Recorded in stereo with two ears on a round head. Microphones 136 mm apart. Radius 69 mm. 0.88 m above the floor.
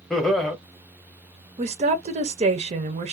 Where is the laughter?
5° left (ahead or behind), 0.9 m.